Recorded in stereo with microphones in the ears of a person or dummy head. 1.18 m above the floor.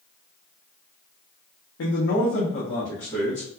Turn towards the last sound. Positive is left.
turn(degrees=5)  # may be behind; listen again after turning